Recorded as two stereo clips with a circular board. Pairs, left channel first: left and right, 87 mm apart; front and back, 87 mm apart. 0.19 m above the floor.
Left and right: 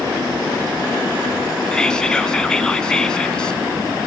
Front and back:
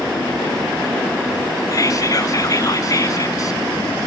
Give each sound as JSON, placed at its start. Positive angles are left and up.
{"t": 1.7, "sound": "whispering", "azimuth_deg": 15, "distance_m": 1.3}